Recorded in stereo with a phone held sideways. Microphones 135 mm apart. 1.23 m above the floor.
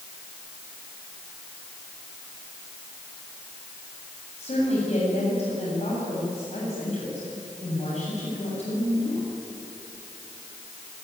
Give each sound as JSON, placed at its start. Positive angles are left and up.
{"t": 4.4, "sound": "a woman speaking", "side_deg": 55, "distance_m": 7.5}